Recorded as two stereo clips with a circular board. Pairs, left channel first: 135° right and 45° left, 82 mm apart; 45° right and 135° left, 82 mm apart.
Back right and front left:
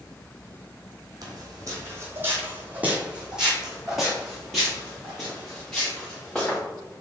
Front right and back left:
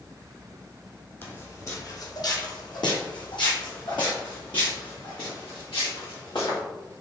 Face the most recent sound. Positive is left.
turn(degrees=-60)